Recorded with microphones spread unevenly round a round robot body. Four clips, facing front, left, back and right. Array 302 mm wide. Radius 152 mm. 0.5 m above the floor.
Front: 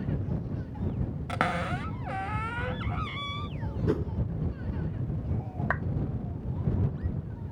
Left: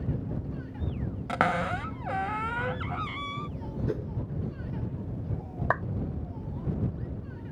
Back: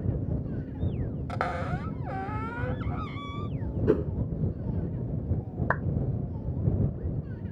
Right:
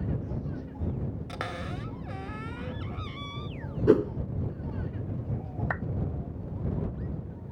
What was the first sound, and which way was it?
A cupboard door, 70° left.